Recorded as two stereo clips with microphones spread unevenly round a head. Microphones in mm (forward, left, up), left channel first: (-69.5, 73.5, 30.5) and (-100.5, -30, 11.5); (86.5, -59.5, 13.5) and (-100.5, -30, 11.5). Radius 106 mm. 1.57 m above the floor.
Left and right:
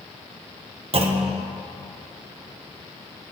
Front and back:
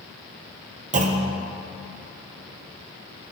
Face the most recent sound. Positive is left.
turn(degrees=-140)